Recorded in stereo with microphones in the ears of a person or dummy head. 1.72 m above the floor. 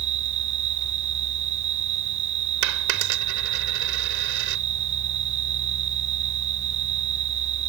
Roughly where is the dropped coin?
Right.